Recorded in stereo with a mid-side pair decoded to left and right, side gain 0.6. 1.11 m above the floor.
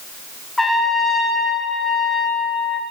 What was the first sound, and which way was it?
A trumpet, 10° left.